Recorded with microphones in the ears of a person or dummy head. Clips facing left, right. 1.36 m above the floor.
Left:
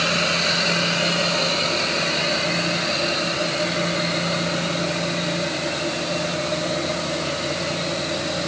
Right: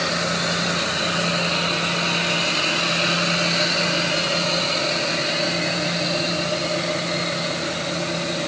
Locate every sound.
Only background noise.